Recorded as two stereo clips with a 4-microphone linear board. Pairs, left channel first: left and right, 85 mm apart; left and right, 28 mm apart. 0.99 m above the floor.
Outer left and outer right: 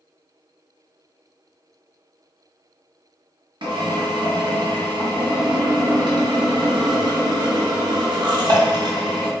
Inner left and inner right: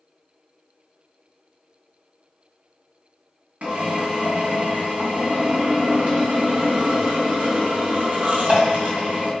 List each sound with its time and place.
3.6 s a drill: 65° right (ahead or behind), 0.9 m